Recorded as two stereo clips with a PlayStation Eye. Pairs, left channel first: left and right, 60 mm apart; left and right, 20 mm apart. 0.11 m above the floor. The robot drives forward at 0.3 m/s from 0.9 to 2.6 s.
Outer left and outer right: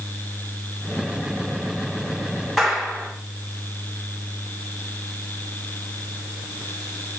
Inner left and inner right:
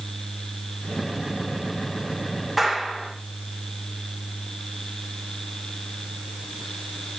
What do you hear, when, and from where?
2.6 s a clap: centre (ahead or behind), 7 m